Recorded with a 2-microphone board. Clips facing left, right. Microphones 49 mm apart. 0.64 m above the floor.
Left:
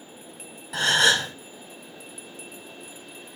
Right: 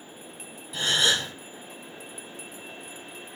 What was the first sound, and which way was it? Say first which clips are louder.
A gasp: left 4 dB; 70° left (ahead or behind).